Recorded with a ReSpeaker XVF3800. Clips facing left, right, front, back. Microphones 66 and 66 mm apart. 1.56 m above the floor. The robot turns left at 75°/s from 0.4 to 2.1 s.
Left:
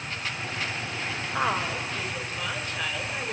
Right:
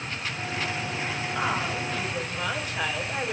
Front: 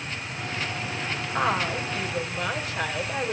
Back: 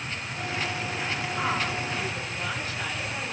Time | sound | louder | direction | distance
1.3 | a woman speaking | left 2 dB, front 5 dB | 50° left | 5.5 m